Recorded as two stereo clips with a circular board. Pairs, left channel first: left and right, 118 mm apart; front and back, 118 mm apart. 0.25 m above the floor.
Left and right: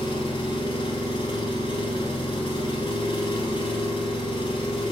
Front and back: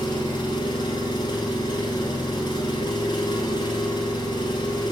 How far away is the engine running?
About 1.0 m.